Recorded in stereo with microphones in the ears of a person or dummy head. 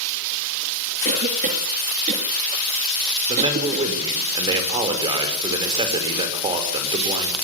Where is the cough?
45° right (ahead or behind), 3 m.